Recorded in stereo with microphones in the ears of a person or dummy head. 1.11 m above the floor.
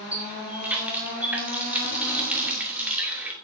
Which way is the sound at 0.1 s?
10° right (ahead or behind).